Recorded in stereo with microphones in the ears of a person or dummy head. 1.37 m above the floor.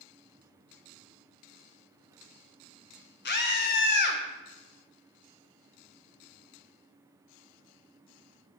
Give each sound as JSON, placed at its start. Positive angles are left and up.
{"t": 3.2, "sound": "a scream", "side_deg": 50, "distance_m": 1.1}